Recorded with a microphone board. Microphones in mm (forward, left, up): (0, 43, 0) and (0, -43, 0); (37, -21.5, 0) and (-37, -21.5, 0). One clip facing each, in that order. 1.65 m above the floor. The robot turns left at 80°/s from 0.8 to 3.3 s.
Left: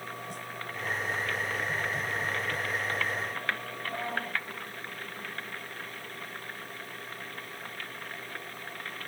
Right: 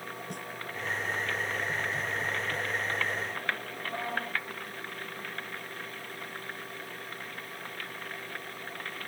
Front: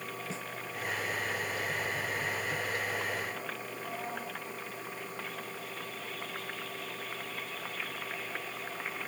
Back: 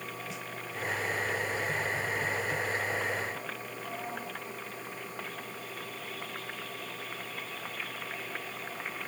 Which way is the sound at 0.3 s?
60° right.